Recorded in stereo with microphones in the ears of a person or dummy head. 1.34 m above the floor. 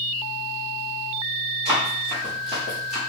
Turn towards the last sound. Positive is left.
turn(degrees=-10)  # may be behind; listen again after turning